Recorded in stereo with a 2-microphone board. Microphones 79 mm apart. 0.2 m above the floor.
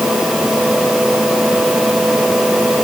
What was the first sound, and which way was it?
Only background noise.